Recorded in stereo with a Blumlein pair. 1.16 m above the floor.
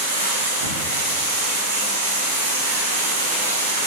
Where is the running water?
70° right, 2.0 m.